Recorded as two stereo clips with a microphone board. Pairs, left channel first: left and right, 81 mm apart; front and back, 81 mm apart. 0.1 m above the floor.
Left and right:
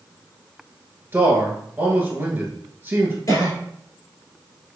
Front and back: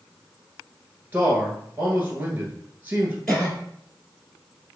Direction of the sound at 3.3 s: 80° left.